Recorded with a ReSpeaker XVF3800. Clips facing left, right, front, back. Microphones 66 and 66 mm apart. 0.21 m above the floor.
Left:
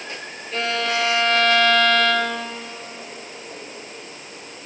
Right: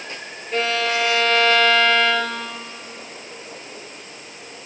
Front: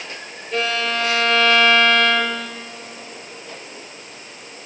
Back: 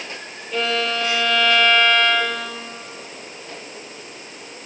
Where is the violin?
30° right, 3.5 m.